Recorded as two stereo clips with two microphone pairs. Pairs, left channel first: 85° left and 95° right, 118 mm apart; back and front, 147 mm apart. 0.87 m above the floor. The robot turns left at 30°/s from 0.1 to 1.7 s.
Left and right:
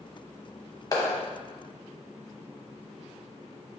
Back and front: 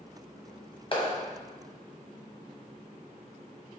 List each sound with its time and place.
0.9 s a clap: 140° left, 0.8 m; by 1.1 s 135° left, 0.8 m